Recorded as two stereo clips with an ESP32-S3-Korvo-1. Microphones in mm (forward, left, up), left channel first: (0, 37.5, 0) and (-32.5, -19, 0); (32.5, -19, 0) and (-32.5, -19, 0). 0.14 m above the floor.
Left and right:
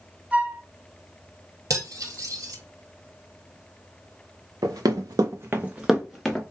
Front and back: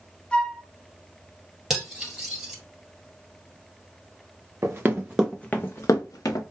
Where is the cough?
No cough in this recording.